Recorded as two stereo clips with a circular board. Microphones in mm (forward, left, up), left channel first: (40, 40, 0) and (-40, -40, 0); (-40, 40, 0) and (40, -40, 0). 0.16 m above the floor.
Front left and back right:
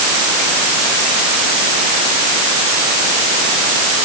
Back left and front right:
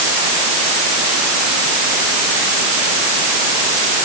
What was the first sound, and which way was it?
Only background noise.